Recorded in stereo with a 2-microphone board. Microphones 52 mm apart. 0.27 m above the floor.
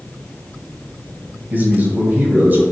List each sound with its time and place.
1.5 s a man speaking: 35° right (ahead or behind), 1.3 m